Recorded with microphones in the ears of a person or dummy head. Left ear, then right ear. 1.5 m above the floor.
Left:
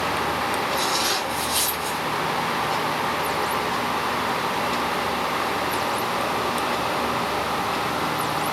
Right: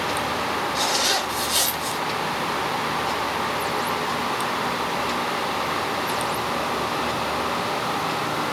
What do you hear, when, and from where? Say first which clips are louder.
0.8 s a zipper: right 1 dB; 30° right (ahead or behind), 1.0 m